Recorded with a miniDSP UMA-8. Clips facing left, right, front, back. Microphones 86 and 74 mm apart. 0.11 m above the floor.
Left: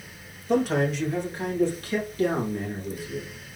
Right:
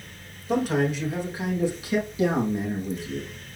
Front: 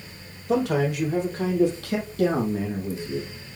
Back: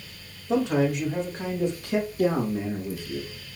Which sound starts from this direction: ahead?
A man speaking, at 0.5 s.